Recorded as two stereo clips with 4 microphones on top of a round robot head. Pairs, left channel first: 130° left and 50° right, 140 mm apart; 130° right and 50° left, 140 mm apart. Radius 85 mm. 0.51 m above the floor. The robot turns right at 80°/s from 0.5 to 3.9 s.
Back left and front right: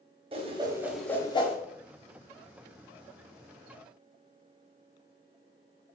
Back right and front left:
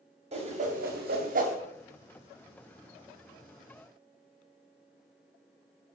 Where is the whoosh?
5° left, 1.9 m; by 1.6 s 90° left, 1.9 m.